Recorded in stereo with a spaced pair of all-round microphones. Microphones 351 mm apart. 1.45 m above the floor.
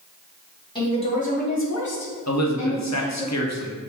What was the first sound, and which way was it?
A woman speaking, 10° left (ahead or behind).